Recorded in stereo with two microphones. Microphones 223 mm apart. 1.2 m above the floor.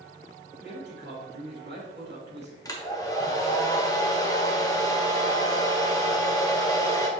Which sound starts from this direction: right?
A man speaking, at 0.6 s.